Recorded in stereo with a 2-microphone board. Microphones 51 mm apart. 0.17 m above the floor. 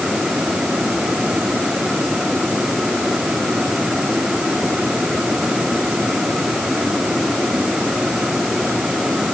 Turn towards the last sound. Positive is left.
No sound to turn to.